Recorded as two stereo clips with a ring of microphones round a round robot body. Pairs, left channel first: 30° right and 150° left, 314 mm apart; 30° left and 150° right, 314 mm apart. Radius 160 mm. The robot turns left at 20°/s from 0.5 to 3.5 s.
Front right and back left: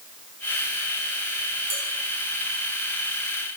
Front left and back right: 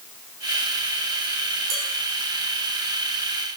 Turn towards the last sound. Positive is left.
turn(degrees=-175)